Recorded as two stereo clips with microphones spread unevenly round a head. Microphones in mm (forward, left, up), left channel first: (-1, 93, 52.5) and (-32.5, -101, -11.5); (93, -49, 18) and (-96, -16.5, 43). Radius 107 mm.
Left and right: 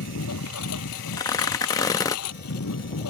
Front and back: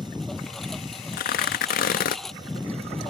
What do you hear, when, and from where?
0.0 s a lawn mower: 80° left
1.1 s tearing paper: 35° left